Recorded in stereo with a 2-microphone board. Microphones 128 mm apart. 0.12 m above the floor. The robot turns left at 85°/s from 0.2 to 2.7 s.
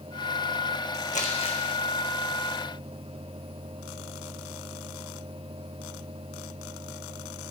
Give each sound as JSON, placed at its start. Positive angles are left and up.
{"t": 1.1, "sound": "crumpling", "side_deg": 75, "distance_m": 1.3}